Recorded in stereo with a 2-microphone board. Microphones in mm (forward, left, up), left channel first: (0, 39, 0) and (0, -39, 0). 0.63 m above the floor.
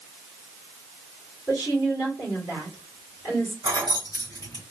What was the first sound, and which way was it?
A woman speaking, 25° right (ahead or behind).